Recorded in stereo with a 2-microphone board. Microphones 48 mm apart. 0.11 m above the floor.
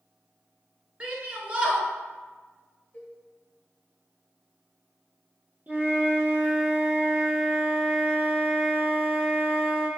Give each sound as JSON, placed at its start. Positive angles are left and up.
{"t": 1.0, "sound": "a shout", "side_deg": -25, "distance_m": 1.1}
{"t": 2.9, "sound": "a cowbell", "side_deg": 30, "distance_m": 1.8}
{"t": 5.7, "sound": "a flute", "side_deg": -35, "distance_m": 1.0}